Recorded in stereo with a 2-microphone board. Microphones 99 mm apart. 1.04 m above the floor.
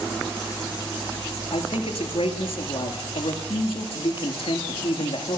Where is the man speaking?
75° left (ahead or behind), 2 m.